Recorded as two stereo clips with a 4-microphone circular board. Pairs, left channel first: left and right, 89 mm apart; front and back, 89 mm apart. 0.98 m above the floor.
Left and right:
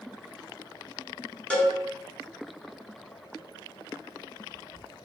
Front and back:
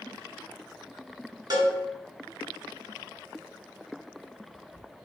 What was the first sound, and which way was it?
A cowbell, 165° left.